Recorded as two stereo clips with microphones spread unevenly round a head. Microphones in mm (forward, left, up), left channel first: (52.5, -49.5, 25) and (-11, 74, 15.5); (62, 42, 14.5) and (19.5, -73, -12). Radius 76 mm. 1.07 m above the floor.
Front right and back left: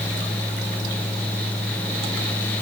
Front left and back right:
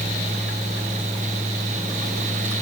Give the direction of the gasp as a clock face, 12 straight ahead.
I don't hear a gasp.